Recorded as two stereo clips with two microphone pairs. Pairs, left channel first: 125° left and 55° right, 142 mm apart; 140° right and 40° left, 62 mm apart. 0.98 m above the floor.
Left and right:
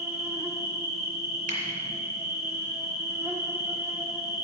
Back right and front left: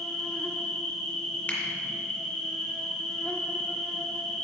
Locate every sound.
0.0 s an insect: 80° right, 0.9 m
1.5 s a finger snap: 85° right, 2 m